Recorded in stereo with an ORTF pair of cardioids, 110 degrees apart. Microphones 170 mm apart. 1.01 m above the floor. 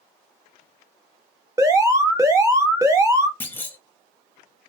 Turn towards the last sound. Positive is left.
turn(degrees=10)